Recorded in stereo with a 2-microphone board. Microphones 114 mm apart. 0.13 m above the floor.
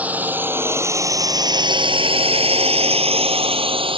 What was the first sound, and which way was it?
A drone, 15° right (ahead or behind).